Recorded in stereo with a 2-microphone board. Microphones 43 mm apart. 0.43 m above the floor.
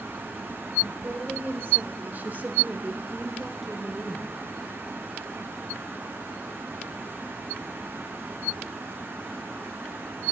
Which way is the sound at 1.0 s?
50° right (ahead or behind).